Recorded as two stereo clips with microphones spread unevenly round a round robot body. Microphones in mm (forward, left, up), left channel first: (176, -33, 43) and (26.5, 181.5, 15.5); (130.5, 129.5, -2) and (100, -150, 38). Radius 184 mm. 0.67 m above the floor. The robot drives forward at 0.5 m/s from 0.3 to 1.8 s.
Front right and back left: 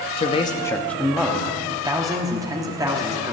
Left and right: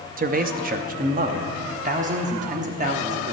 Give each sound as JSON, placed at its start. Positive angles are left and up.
{"t": 0.2, "sound": "a man speaking", "azimuth_deg": -105, "distance_m": 0.7}